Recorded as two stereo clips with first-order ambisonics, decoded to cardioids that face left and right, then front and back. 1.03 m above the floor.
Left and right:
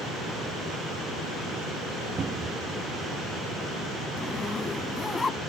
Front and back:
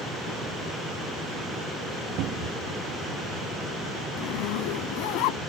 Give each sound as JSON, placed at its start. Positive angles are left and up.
{"t": 2.2, "sound": "a cupboard door", "azimuth_deg": -155}
{"t": 4.2, "sound": "a zipper", "azimuth_deg": 15}